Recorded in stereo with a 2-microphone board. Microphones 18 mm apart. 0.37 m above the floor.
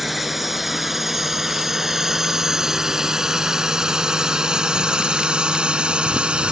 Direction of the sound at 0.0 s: 10° right (ahead or behind).